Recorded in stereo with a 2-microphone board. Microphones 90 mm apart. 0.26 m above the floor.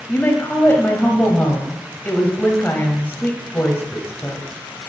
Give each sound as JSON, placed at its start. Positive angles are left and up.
{"t": 0.1, "sound": "a woman speaking", "side_deg": 25, "distance_m": 1.1}